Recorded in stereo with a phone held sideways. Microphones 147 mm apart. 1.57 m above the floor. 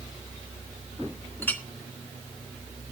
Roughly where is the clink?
Centre.